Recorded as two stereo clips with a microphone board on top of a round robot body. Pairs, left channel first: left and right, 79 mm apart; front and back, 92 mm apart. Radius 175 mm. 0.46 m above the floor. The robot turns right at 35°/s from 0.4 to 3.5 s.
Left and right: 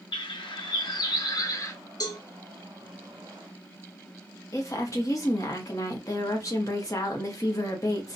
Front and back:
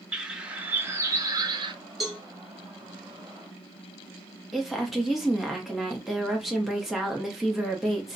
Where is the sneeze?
No sneeze in this recording.